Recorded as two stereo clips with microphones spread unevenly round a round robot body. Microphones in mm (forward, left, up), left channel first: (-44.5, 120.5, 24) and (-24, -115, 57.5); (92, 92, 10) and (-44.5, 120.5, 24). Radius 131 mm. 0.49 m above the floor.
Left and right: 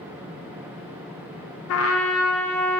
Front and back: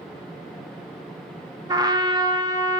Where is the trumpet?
100° left, 0.7 m.